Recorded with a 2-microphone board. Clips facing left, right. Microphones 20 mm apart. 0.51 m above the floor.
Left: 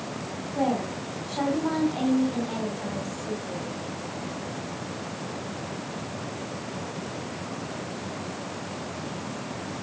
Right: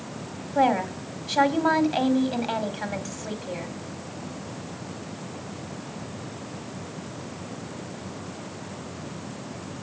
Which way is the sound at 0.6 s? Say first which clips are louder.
Right 5 dB; 55° right (ahead or behind).